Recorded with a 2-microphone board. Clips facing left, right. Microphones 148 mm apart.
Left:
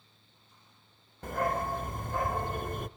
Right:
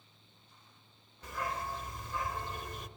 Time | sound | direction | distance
1.2 | a dog barking | 50° left (ahead or behind) | 0.5 m